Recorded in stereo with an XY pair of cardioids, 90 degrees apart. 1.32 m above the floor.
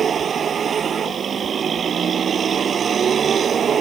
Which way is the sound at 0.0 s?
55° right.